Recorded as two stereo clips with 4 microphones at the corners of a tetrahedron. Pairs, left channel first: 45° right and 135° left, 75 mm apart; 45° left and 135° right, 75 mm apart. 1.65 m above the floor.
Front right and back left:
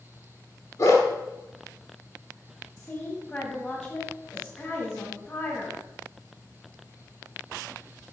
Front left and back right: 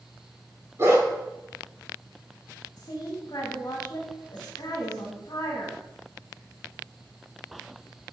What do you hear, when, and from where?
0.8 s a dog barking: 85° right, 2 m
2.8 s a woman speaking: 20° left, 1.9 m